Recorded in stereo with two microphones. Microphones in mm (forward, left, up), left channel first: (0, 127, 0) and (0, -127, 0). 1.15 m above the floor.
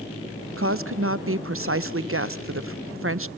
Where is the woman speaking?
55° right (ahead or behind), 0.6 m.